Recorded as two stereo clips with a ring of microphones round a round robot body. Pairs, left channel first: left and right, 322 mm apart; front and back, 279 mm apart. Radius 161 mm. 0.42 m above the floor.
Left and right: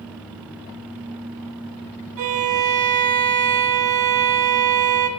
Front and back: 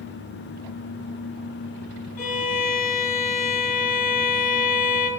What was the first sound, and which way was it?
A violin, 65° right.